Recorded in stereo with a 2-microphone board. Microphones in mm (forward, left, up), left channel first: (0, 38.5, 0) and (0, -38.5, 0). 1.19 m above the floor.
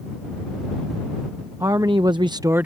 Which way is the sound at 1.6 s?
45° right (ahead or behind).